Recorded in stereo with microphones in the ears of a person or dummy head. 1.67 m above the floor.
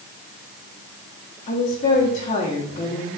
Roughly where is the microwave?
No microwave in this recording.